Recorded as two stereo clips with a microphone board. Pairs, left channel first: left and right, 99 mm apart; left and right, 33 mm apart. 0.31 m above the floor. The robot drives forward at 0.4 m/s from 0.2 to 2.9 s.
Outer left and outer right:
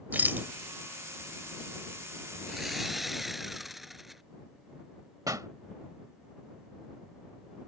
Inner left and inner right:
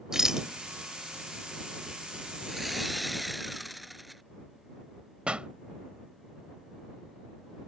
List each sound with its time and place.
0.1 s a rattle: 20° right (ahead or behind)
2.5 s sawing: centre (ahead or behind)
5.3 s a pop: 35° right (ahead or behind)